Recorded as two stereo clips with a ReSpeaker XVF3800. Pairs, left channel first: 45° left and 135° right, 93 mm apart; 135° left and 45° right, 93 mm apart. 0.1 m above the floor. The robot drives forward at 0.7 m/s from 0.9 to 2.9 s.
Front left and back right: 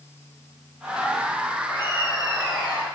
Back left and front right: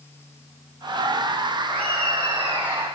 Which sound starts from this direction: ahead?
Laughter, at 1.7 s.